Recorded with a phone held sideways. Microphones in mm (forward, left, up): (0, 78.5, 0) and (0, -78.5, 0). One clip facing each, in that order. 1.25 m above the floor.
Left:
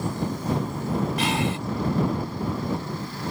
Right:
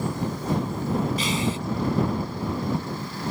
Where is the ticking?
I don't hear ticking.